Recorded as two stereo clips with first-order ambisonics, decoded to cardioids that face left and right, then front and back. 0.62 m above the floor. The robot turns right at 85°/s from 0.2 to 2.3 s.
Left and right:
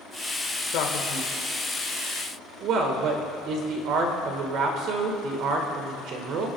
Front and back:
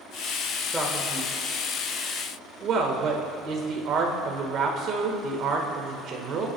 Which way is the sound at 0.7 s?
100° left.